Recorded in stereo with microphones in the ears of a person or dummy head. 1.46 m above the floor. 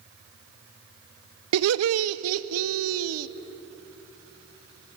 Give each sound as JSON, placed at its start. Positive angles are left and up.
{"t": 1.5, "sound": "laughter", "side_deg": -80, "distance_m": 0.7}